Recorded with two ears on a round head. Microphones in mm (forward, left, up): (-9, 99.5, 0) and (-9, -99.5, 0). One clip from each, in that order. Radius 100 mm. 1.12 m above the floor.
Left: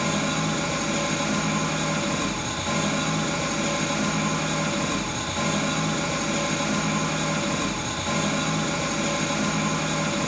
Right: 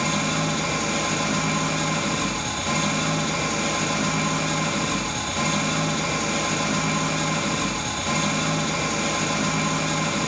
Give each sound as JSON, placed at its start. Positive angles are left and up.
{"t": 0.0, "sound": "an engine running", "side_deg": -15, "distance_m": 1.1}